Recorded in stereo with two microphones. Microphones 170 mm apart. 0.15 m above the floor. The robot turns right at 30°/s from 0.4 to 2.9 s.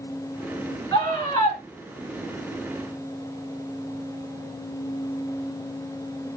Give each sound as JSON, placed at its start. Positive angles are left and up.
{"t": 0.9, "sound": "a scream", "side_deg": 20, "distance_m": 1.7}